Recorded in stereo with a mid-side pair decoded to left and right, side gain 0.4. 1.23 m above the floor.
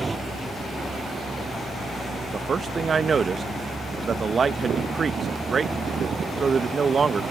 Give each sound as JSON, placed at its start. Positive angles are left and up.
{"t": 0.0, "sound": "a vehicle", "azimuth_deg": -25}
{"t": 2.3, "sound": "a man speaking", "azimuth_deg": -45}